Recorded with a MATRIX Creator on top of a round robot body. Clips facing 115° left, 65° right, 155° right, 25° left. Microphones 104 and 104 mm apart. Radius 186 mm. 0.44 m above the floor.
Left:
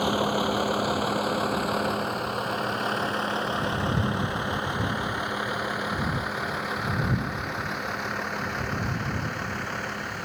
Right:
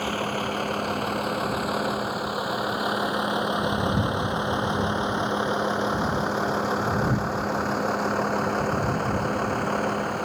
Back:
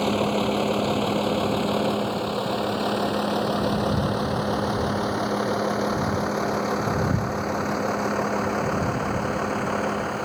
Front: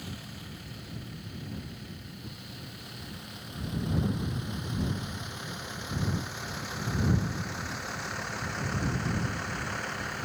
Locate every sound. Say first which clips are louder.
0.0 s a vehicle: left 3 dB, back 22 dB; 170° right; by 10.2 s 115° right